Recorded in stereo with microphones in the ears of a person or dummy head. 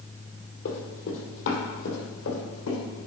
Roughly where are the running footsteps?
Left.